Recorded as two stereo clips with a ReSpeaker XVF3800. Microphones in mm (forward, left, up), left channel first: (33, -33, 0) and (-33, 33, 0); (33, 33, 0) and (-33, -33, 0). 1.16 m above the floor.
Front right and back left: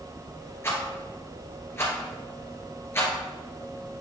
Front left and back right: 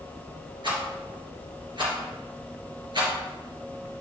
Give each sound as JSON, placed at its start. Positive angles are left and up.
{"t": 0.6, "sound": "a rattle", "azimuth_deg": -105, "distance_m": 3.0}